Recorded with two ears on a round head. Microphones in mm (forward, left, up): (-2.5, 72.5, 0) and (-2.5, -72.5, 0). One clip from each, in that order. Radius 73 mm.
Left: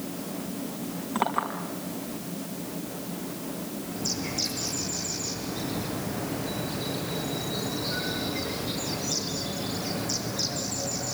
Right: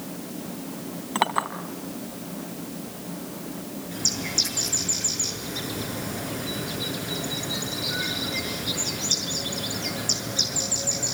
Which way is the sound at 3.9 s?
60° right (ahead or behind).